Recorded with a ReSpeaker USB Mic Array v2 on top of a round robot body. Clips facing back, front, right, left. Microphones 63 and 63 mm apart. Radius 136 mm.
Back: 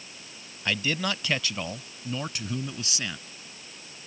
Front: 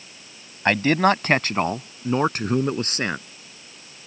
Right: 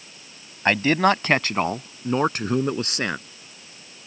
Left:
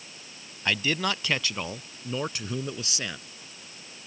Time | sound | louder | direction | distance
0.7 | a man speaking | front 11 dB, right 9 dB | 45° right | ?